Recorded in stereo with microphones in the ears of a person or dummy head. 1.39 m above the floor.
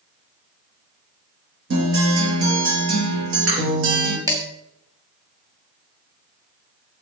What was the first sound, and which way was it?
A guitar, 75° right (ahead or behind).